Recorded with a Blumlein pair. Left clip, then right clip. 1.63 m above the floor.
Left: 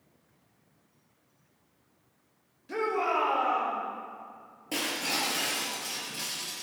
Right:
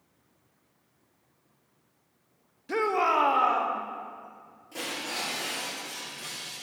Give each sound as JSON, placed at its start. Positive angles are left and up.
{"t": 2.7, "sound": "a shout", "azimuth_deg": -20, "distance_m": 1.8}
{"t": 4.7, "sound": "breaking glass", "azimuth_deg": 40, "distance_m": 6.0}